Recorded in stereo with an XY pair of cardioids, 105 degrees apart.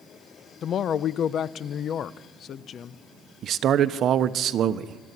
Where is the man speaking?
65° right, 1.0 m.